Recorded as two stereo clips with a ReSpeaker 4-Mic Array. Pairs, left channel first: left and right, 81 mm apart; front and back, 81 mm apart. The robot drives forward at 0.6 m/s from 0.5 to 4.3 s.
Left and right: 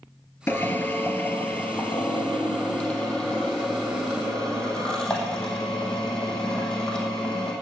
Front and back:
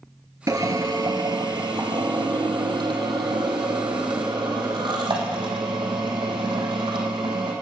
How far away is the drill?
About 1.3 m.